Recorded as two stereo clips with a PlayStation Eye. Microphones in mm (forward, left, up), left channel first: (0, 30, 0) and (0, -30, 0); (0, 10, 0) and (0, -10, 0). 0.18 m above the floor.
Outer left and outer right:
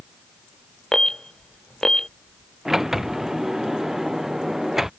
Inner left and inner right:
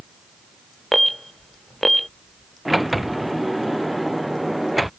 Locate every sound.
0.9 s an alarm: 10° left (ahead or behind)
2.6 s a sliding door: 5° right (ahead or behind)